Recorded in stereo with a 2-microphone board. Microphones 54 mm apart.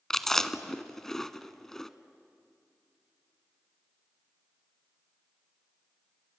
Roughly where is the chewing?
Centre.